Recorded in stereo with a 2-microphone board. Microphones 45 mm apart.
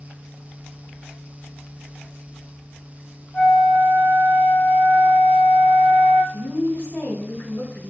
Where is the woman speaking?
55° left (ahead or behind), 2 m.